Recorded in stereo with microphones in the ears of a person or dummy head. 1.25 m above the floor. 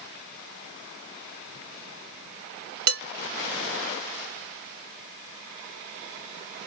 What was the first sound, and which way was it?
Dishes clattering, 55° right (ahead or behind).